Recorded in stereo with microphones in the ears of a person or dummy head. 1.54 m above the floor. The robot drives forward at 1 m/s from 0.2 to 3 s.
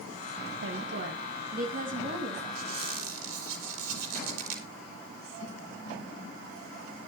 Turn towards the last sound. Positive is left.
turn(degrees=-60)  # may be behind; listen again after turning